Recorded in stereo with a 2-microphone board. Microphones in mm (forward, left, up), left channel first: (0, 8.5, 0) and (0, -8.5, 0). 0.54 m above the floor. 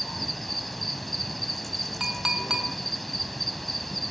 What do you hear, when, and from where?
0.0 s an insect: 5° left (ahead or behind), 0.7 m
2.0 s a clink: 25° right (ahead or behind), 2 m